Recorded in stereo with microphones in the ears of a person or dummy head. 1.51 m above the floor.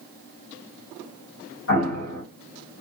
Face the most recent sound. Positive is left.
turn(degrees=50)  # may be behind; listen again after turning